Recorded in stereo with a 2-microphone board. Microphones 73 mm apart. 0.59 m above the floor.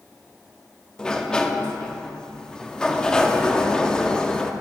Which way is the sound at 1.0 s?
10° left (ahead or behind).